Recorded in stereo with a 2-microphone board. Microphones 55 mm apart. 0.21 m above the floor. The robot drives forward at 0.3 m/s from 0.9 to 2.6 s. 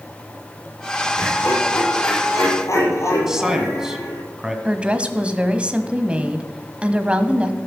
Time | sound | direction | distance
1.2 | laughter | 55° left (ahead or behind) | 5.5 m
3.3 | a man speaking | 10° right (ahead or behind) | 1.8 m
4.7 | a woman speaking | 20° right (ahead or behind) | 1.1 m